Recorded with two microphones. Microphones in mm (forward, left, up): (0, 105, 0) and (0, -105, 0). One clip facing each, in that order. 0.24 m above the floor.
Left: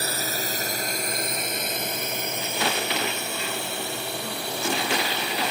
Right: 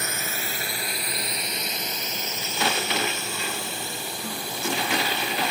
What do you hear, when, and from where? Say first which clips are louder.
0.0 s a drone: left 3 dB; 35° left (ahead or behind); by 5.5 s 70° left (ahead or behind)